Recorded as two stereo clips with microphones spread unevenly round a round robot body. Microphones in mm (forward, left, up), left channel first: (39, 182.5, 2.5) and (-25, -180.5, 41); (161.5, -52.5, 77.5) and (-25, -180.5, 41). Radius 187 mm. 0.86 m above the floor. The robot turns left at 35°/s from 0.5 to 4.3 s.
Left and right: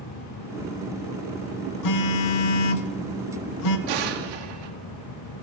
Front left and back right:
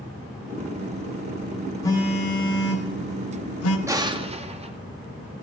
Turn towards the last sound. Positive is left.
turn(degrees=-85)